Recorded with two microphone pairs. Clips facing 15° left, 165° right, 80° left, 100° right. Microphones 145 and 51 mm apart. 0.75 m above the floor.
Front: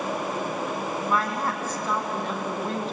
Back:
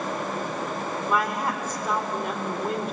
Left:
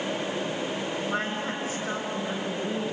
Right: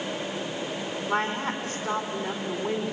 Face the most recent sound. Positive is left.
turn(degrees=-90)